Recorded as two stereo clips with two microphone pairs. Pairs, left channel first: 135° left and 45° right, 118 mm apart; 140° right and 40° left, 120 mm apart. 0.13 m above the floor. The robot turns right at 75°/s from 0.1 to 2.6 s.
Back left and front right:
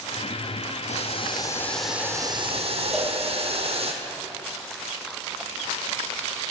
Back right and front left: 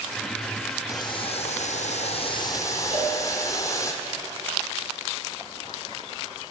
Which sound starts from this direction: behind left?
Boiling, at 0.9 s.